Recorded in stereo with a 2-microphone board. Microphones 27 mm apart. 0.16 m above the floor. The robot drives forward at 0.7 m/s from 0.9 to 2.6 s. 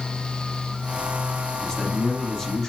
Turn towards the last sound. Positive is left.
turn(degrees=20)  # may be behind; listen again after turning